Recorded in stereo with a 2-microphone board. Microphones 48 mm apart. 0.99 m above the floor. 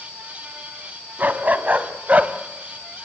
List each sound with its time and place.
1.2 s a dog barking: 35° right (ahead or behind), 2 m; by 2.3 s 30° right (ahead or behind), 1.3 m